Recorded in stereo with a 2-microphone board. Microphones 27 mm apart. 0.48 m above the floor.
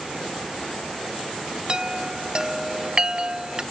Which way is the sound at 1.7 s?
35° right (ahead or behind).